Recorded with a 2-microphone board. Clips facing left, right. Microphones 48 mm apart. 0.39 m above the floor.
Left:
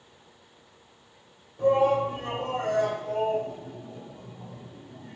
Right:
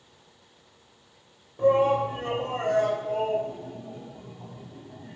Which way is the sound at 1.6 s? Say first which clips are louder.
Right 1 dB; 30° right (ahead or behind).